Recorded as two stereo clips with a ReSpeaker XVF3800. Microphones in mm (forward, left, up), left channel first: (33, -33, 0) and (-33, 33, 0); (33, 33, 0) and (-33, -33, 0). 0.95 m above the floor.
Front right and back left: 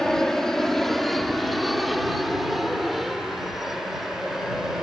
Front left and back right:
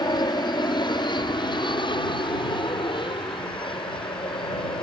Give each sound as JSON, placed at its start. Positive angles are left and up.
{"t": 0.0, "sound": "an aircraft", "azimuth_deg": 40}